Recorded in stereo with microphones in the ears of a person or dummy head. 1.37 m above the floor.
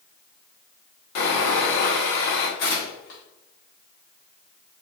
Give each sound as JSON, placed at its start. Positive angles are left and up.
{"t": 1.1, "sound": "sawing", "side_deg": 65, "distance_m": 1.3}
{"t": 2.6, "sound": "tearing paper", "side_deg": 50, "distance_m": 1.3}